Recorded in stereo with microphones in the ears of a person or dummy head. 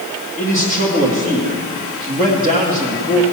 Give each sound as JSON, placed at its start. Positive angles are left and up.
{"t": 0.4, "sound": "a man speaking", "side_deg": -45, "distance_m": 1.6}